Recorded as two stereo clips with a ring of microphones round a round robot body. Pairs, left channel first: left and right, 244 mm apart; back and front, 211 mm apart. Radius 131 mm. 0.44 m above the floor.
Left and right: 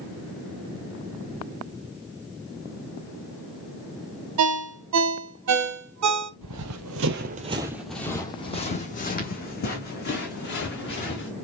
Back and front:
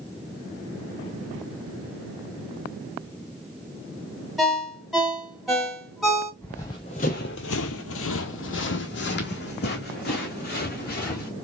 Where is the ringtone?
90° right, 1.0 m.